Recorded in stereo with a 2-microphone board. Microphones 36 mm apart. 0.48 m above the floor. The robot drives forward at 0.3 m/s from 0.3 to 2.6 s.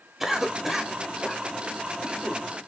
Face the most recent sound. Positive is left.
turn(degrees=-5)  # may be behind; listen again after turning